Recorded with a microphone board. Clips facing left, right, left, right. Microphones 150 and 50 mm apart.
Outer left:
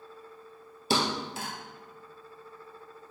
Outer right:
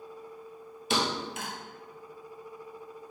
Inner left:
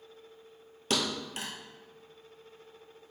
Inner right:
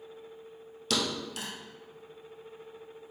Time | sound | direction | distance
0.9 | a thud | 35° left (ahead or behind) | 1.0 m